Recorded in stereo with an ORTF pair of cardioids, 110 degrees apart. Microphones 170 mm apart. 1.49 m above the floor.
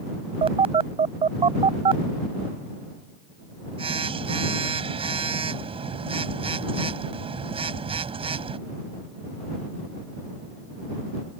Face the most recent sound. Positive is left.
turn(degrees=-35)